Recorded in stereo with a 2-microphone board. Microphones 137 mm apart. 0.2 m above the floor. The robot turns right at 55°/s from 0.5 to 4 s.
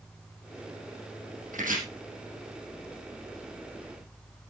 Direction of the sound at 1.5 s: 70° right (ahead or behind).